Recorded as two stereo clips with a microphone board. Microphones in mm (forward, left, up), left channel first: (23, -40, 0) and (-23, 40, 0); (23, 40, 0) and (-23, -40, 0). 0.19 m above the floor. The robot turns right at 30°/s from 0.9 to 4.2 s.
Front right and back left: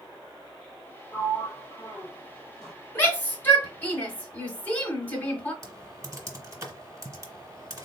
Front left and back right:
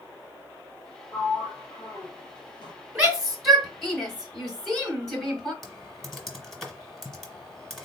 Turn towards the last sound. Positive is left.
turn(degrees=145)